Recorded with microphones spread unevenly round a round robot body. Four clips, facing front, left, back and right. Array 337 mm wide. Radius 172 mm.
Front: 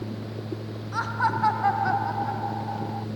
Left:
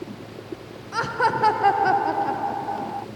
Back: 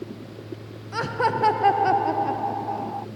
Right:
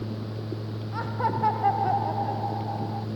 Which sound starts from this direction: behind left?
Laughter, at 0.9 s.